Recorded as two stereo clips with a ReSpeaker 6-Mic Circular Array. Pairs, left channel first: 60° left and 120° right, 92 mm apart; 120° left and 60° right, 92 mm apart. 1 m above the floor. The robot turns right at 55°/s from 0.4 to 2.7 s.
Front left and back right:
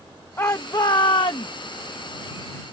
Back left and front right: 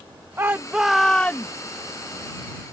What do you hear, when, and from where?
0.4 s a shout: straight ahead; by 1.5 s 60° left